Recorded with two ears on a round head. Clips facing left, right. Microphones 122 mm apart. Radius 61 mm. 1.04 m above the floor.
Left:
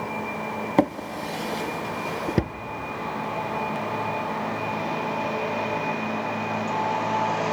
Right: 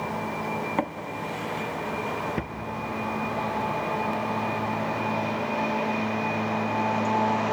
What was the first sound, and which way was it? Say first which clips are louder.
A drawer: left 6 dB; 40° left (ahead or behind).